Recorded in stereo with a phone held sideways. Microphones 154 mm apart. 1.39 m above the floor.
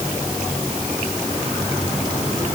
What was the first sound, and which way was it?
Only background noise.